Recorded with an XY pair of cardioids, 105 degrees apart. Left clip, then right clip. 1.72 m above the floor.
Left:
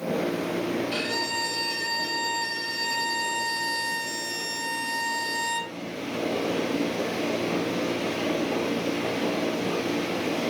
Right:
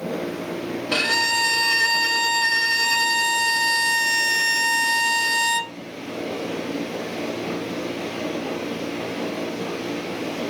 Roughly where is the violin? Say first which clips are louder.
Right 8 dB; right.